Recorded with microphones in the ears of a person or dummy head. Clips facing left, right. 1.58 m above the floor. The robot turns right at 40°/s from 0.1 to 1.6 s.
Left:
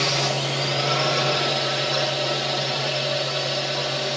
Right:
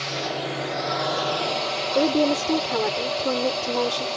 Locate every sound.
0.0 s a drone: 100° left; by 4.2 s 160° left
1.9 s a woman speaking: 70° right (ahead or behind)